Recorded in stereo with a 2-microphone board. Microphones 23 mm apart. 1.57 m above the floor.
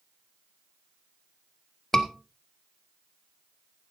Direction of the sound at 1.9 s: 20° left (ahead or behind).